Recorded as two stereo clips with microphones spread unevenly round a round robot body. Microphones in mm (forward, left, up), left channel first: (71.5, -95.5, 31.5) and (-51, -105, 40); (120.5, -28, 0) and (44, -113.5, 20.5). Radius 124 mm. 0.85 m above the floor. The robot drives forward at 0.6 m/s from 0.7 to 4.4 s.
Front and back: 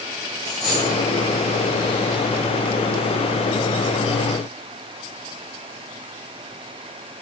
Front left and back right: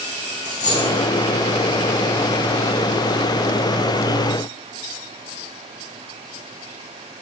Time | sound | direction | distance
0.5 | a dropped coin | 85° left | 5.5 m